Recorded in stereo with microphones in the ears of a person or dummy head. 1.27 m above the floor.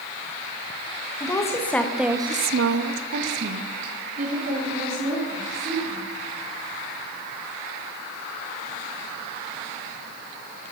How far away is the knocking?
No knocking in this recording.